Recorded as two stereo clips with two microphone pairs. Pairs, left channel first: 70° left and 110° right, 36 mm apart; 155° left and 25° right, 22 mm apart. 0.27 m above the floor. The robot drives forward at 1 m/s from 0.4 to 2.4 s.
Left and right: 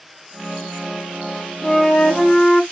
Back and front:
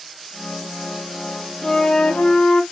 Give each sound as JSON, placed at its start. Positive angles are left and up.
{"t": 1.6, "sound": "a flute", "azimuth_deg": 120, "distance_m": 0.7}